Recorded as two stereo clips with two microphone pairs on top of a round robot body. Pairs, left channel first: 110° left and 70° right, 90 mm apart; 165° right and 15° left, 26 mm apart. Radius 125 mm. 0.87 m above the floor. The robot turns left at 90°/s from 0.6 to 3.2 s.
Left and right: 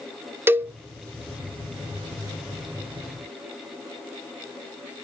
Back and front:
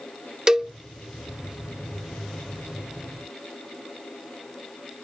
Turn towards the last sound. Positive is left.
turn(degrees=105)